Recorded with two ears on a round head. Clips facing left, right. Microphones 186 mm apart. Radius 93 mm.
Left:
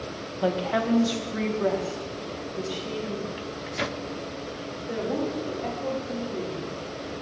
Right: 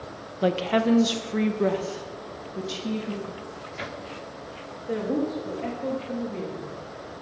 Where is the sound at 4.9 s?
35° right (ahead or behind), 2.5 m.